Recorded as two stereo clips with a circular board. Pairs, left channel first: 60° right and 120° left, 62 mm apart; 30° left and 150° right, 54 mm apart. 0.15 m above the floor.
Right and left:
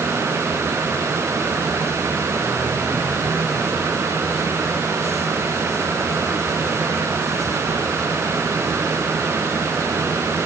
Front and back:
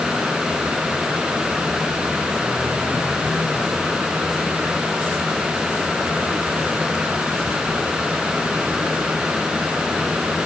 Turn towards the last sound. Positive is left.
No sound to turn to.